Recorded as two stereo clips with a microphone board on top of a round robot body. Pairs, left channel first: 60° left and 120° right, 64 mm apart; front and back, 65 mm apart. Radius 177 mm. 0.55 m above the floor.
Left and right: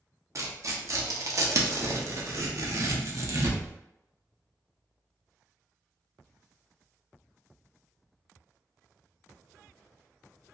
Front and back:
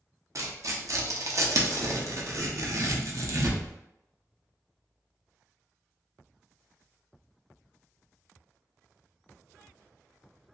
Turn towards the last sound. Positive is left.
turn(degrees=-150)